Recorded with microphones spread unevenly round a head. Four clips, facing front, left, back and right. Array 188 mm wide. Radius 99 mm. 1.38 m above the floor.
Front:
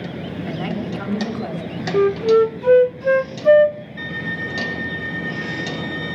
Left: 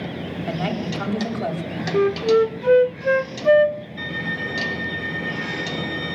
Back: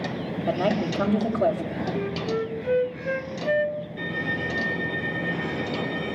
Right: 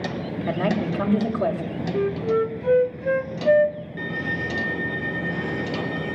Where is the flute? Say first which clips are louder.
Left 6 dB, front 16 dB; 10° left, 0.5 m.